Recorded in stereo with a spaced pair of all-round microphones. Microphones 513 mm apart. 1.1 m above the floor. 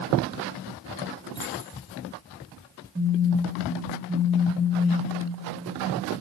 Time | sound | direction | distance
1.4 | keys jangling | 40° right (ahead or behind) | 1.5 m
3.0 | a phone buzzing | 15° right (ahead or behind) | 1.0 m